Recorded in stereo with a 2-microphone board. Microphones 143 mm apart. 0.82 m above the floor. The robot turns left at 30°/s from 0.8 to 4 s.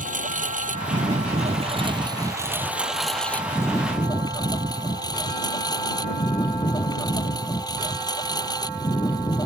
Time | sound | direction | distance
0.0 | a lawn mower | 115° right | ?